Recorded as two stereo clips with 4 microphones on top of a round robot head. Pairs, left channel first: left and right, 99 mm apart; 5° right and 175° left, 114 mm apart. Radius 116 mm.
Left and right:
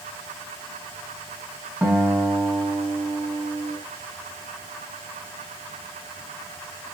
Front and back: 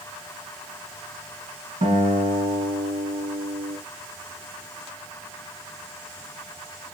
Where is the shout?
I don't hear a shout.